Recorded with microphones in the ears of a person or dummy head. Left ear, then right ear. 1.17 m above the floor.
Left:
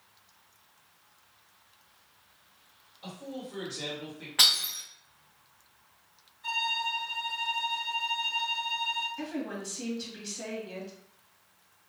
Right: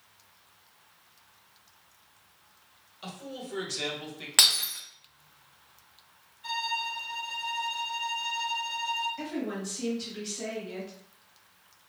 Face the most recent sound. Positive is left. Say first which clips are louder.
# right 2 dB
turn(degrees=0)  # may be behind; listen again after turning